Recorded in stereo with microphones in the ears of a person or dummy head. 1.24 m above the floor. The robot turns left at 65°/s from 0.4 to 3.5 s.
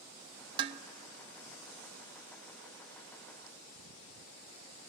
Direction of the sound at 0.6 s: 30° right (ahead or behind).